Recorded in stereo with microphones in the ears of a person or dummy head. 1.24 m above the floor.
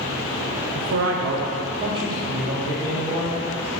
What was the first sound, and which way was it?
A man speaking, 60° right (ahead or behind).